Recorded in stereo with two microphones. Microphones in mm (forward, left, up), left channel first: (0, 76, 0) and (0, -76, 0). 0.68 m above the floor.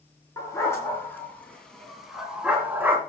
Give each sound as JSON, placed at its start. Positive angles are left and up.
{"t": 0.4, "sound": "a dog barking", "side_deg": 20, "distance_m": 3.5}